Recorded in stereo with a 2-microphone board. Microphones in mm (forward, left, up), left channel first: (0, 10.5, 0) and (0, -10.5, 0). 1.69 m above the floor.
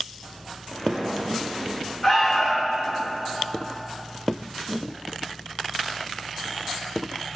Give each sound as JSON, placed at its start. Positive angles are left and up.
{"t": 0.7, "sound": "footsteps", "side_deg": 25, "distance_m": 2.0}
{"t": 2.0, "sound": "an alarm", "side_deg": 60, "distance_m": 2.5}